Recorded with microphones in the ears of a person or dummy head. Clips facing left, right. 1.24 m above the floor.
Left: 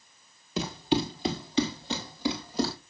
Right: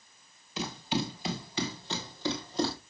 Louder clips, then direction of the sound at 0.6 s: Left 6 dB; 35° left (ahead or behind).